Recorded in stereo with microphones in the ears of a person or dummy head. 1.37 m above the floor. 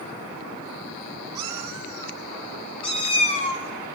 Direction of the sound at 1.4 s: 20° right (ahead or behind).